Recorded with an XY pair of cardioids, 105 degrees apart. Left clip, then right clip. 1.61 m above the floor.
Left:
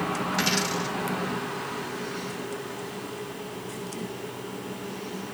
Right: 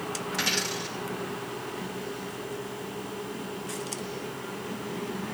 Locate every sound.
0.3 s a dropped coin: 15° left, 3 m